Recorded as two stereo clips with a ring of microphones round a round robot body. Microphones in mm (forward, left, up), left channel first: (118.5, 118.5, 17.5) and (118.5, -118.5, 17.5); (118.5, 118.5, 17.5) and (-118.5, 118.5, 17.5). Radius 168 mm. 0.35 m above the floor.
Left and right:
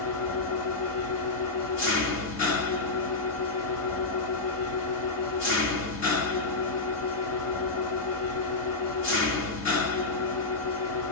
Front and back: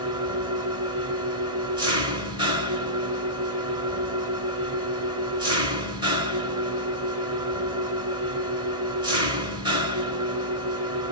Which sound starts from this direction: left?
An engine running, at 0.0 s.